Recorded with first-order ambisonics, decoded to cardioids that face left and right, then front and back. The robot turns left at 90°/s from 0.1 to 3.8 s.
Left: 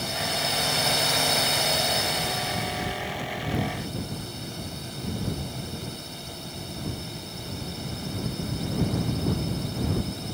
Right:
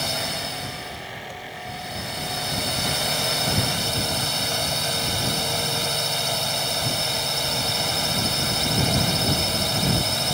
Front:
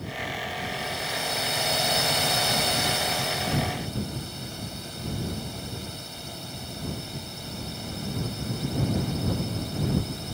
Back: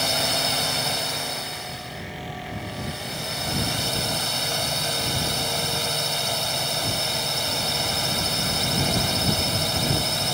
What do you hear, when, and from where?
0.0 s a drone: 160° right; by 10.3 s 135° right